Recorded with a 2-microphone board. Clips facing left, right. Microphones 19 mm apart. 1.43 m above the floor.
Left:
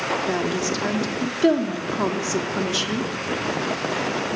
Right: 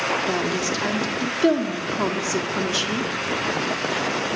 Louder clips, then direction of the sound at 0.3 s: Even; centre (ahead or behind).